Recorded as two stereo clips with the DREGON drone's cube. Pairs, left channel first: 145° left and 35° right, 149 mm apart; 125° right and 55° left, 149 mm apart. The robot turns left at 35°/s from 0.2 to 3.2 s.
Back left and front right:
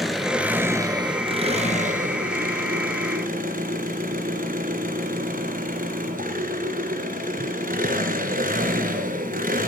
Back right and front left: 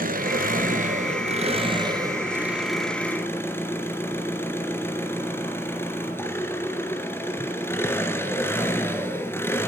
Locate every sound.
0.0 s an engine running: 55° left, 2.5 m; by 9.7 s 50° right, 2.5 m